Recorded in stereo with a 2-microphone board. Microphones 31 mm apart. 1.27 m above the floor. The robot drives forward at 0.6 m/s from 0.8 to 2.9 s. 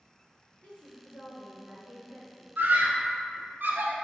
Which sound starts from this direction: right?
A scream, at 2.6 s.